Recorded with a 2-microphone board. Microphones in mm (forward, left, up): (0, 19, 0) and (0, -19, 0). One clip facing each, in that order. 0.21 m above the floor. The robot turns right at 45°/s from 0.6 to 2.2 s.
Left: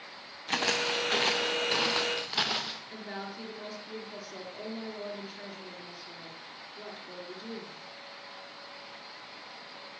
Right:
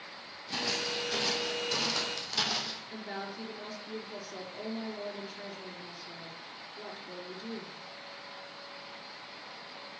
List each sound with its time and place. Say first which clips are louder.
0.5 s footsteps: left 5 dB; 65° left (ahead or behind), 2.5 m; by 2.8 s 30° left (ahead or behind), 2.5 m
2.9 s a woman speaking: even; centre (ahead or behind), 3.5 m